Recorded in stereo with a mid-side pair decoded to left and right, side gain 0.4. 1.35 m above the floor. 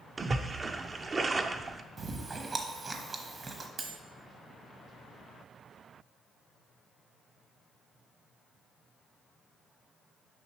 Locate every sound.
0.2 s a splash: 35° right, 0.5 m
2.0 s chewing: 45° right, 1.0 m
3.8 s cutlery clinking: 55° right, 1.2 m